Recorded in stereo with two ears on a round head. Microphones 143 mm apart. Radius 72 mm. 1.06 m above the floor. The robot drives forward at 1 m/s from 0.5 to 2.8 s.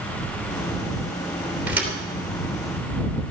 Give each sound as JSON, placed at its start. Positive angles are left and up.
{"t": 1.7, "sound": "a thud", "side_deg": -10, "distance_m": 3.0}